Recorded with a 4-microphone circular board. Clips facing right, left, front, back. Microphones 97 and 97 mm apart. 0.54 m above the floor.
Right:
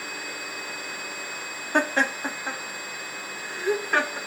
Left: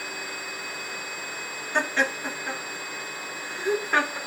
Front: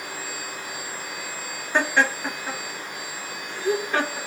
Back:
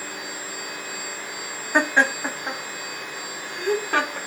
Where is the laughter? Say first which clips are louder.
Right 2 dB, back 1 dB; 100° right, 0.9 m; by 4.2 s 175° left, 1.4 m.